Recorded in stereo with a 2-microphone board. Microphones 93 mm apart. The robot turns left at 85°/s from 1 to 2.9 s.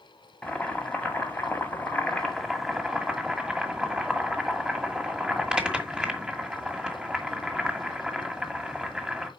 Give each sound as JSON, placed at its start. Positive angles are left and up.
{"t": 0.4, "sound": "boiling", "side_deg": 15, "distance_m": 1.6}